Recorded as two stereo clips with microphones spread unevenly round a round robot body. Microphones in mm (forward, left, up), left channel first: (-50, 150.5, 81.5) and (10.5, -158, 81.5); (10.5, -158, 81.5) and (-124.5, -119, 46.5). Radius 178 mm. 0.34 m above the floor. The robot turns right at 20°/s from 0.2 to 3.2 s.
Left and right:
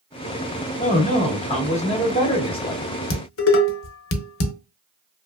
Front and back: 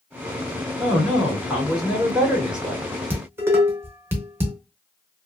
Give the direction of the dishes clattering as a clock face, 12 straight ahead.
8 o'clock.